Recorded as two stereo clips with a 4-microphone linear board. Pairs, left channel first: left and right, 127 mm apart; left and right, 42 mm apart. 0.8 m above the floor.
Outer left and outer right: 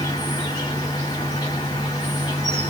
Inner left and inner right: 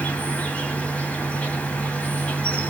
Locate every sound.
0.0 s an insect: 35° left (ahead or behind), 1.3 m